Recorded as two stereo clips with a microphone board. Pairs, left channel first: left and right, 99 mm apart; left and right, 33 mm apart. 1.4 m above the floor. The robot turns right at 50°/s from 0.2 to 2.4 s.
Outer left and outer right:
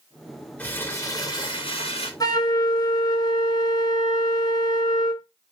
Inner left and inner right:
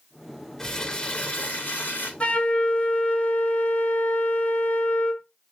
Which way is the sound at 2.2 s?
40° left (ahead or behind).